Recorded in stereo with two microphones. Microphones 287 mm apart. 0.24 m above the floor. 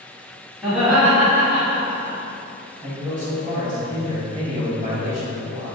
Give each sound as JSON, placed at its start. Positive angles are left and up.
{"t": 0.6, "sound": "laughter", "side_deg": 0, "distance_m": 2.0}
{"t": 2.8, "sound": "a man speaking", "side_deg": -25, "distance_m": 1.2}